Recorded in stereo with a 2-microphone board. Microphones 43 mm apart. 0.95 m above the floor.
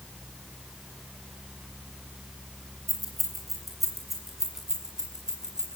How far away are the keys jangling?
About 7.5 m.